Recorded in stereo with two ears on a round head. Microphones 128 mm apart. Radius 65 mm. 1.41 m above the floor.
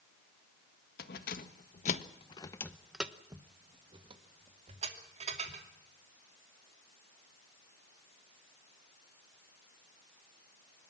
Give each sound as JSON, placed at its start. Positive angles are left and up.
{"t": 1.0, "sound": "keys jangling", "side_deg": 75, "distance_m": 1.7}